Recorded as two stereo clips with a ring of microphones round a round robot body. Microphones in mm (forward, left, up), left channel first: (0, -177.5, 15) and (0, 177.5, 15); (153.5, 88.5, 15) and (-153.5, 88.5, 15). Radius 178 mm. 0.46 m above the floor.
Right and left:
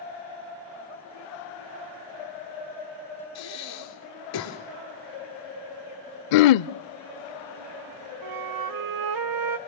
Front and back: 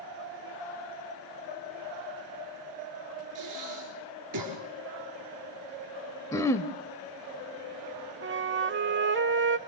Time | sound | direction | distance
3.4 | breathing | 135° right | 4 m
6.3 | throat clearing | 80° right | 0.6 m
8.2 | a flute | 125° left | 1.0 m